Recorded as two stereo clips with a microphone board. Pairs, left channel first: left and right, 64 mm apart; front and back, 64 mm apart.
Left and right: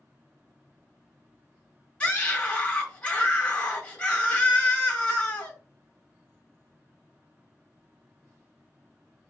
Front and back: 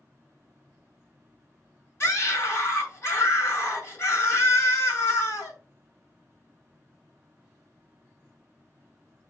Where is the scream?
25° left, 2 m.